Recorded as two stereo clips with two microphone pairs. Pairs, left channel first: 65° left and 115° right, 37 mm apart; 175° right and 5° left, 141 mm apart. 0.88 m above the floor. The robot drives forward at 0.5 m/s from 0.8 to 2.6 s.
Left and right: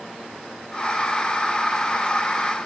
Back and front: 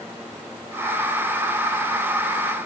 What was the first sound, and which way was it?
Only background noise.